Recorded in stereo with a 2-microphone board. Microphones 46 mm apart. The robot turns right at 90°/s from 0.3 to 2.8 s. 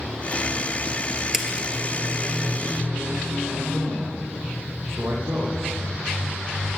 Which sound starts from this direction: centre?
A splash, at 1.3 s.